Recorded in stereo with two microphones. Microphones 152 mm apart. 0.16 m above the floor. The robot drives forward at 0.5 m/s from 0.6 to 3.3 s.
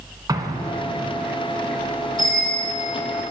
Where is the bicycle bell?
60° right (ahead or behind), 4 m; by 2.7 s 55° right (ahead or behind), 4.5 m.